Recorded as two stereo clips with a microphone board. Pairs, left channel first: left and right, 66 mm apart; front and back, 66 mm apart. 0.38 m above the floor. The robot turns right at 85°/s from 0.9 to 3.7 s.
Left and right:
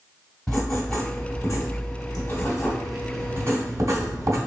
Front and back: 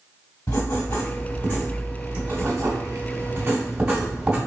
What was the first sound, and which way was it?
Writing, 5° left.